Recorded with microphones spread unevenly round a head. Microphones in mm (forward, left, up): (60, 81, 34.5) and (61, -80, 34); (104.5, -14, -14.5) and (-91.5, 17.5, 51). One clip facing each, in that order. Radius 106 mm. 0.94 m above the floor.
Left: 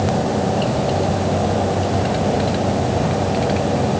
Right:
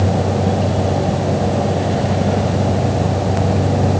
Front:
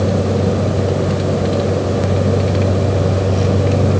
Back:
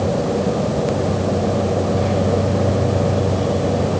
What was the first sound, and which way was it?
Only background noise.